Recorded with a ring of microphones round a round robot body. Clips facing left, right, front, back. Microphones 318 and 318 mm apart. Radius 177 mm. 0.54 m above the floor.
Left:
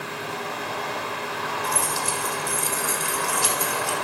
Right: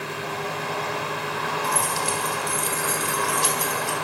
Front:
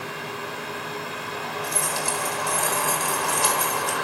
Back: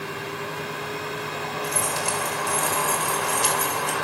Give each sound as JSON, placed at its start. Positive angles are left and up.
{"t": 1.6, "sound": "keys jangling", "azimuth_deg": 45, "distance_m": 3.5}